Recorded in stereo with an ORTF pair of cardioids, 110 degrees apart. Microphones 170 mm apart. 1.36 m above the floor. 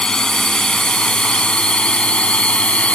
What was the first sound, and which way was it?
A drone, 5° left.